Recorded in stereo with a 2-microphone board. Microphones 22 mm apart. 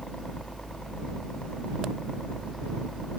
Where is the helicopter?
35° left (ahead or behind).